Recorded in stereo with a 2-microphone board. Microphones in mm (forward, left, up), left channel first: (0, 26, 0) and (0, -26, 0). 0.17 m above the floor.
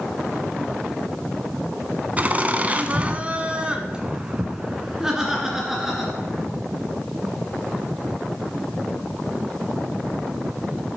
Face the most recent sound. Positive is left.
turn(degrees=-5)  # may be behind; listen again after turning